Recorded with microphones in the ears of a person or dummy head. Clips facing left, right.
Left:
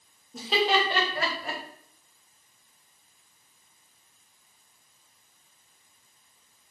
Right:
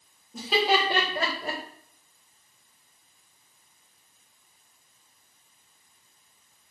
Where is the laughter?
Centre (ahead or behind), 1.2 m; by 1.6 s 35° right (ahead or behind), 1.0 m.